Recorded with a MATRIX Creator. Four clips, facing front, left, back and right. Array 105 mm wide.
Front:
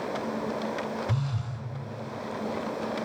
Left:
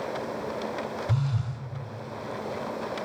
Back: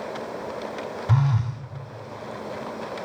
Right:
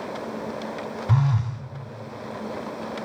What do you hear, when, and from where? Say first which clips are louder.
1.1 s a phone buzzing: right 6 dB, back 8 dB; 140° right, 1.9 m